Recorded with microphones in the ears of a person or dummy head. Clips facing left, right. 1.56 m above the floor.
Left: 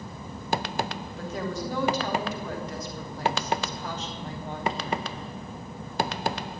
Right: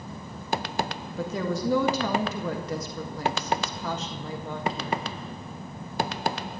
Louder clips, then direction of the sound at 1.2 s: Right 4 dB; 70° right (ahead or behind).